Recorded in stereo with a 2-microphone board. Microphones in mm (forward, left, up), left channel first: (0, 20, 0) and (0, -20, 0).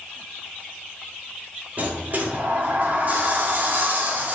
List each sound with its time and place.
1.8 s a sliding door: 45° right (ahead or behind), 1.8 m